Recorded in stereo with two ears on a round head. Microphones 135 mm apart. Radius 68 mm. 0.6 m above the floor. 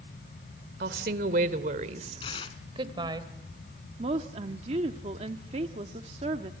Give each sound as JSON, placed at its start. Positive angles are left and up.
{"t": 0.8, "sound": "a woman speaking", "side_deg": -70, "distance_m": 2.0}
{"t": 2.2, "sound": "tearing paper", "side_deg": 35, "distance_m": 1.8}
{"t": 4.0, "sound": "a woman speaking", "side_deg": -40, "distance_m": 1.2}